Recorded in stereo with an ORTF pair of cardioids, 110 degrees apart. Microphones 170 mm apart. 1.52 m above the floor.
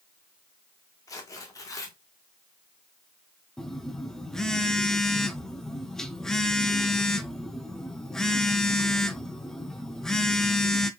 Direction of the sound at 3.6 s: 5° left.